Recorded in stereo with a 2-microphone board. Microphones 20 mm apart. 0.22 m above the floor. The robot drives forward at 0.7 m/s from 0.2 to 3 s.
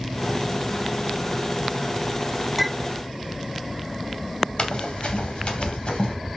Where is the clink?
5° right (ahead or behind), 0.7 m.